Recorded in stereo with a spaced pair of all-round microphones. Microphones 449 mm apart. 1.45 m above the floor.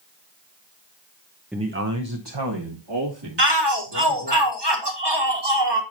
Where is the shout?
65° right (ahead or behind), 2.0 m.